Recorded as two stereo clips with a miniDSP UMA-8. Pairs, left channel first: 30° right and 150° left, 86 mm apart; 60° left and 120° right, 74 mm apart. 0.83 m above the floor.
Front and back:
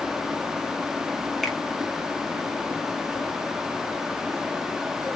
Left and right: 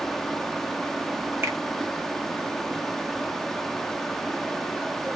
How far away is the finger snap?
About 0.8 m.